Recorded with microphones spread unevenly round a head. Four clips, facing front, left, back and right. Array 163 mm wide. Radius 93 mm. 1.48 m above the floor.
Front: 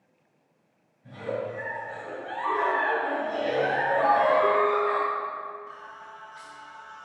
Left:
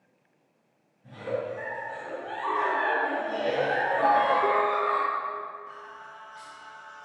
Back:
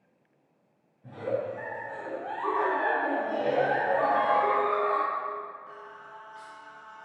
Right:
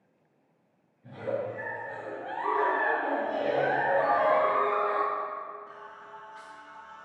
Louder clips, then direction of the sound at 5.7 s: Left 2 dB, front 2 dB; 135° right.